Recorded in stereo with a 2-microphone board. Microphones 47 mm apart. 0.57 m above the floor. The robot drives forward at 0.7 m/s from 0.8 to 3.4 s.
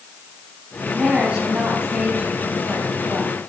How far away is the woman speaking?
About 5.5 m.